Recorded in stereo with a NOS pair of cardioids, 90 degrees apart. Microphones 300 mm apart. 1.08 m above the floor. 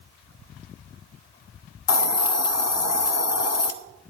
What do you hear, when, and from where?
1.9 s a hiss: 55° left, 0.9 m